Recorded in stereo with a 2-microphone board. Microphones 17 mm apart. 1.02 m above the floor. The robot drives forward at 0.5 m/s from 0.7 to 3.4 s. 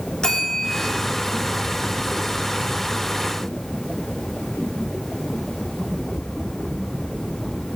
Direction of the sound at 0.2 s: 50° left (ahead or behind).